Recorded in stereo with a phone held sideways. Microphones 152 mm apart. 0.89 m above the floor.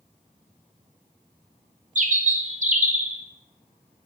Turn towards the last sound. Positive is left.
turn(degrees=-55)  # may be behind; listen again after turning